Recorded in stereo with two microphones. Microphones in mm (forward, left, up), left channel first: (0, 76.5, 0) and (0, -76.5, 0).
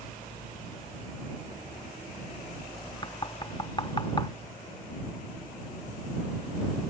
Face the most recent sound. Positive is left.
turn(degrees=30)  # may be behind; listen again after turning